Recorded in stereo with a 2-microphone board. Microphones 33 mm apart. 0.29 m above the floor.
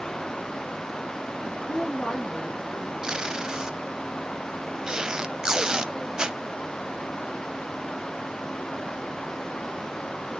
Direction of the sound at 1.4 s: 40° left (ahead or behind).